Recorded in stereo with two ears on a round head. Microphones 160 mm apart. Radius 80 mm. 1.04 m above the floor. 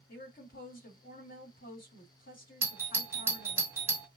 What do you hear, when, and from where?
0.1 s a woman speaking: 50° left (ahead or behind), 2 m
2.6 s a doorbell: 10° right (ahead or behind), 0.7 m